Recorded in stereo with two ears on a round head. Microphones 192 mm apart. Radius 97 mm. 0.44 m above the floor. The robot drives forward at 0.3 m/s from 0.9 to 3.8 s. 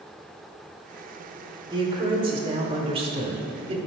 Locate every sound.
1.7 s a man speaking: 20° right (ahead or behind), 1.3 m; by 3.8 s 25° right (ahead or behind), 1.0 m